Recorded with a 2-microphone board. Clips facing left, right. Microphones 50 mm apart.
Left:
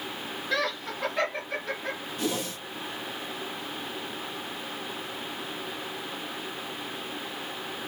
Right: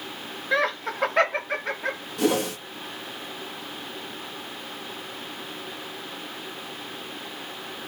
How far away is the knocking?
No knocking in this recording.